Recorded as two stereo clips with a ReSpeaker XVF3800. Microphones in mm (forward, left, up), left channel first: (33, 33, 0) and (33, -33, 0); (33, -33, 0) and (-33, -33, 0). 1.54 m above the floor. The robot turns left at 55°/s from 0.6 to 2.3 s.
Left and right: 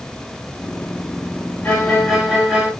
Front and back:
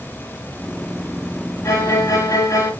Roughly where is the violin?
Ahead left.